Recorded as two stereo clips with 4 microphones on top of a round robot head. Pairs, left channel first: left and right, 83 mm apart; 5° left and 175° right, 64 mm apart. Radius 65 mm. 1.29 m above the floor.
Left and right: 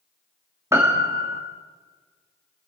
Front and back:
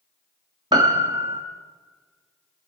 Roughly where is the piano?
Behind right.